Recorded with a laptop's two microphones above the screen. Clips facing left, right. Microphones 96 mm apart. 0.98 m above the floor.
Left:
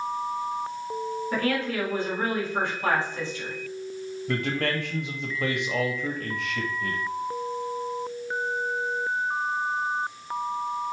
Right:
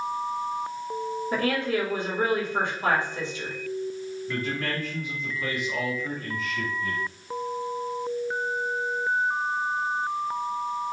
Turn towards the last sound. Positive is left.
turn(degrees=70)  # may be behind; listen again after turning